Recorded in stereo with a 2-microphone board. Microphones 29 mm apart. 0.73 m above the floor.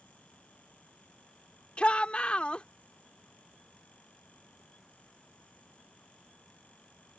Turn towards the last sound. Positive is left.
turn(degrees=45)  # may be behind; listen again after turning